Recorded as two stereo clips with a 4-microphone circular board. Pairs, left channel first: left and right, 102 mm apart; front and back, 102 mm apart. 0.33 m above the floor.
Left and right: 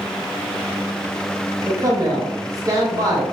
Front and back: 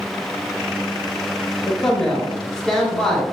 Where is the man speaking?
80° right, 1.0 m.